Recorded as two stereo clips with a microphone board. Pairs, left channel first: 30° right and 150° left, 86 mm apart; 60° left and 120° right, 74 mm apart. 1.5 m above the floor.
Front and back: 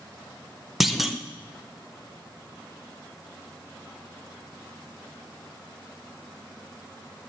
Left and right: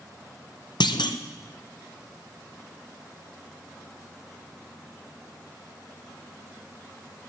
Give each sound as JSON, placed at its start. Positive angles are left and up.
{"t": 0.8, "sound": "a clunk", "azimuth_deg": 65, "distance_m": 0.6}